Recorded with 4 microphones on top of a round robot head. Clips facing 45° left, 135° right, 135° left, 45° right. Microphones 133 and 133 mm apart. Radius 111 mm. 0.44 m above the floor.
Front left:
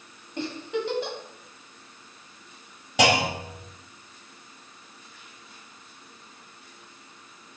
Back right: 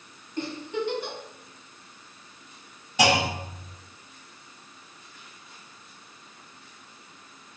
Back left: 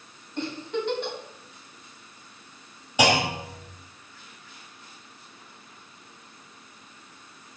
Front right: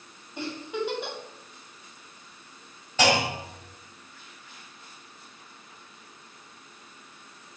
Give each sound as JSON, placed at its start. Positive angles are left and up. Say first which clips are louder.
{"t": 0.4, "sound": "a giggle", "louder": "front left 1 dB, back left 2 dB", "azimuth_deg": 35, "distance_m": 3.0}
{"t": 3.0, "sound": "a clunk", "louder": "front left 1 dB, back left 1 dB", "azimuth_deg": 55, "distance_m": 3.0}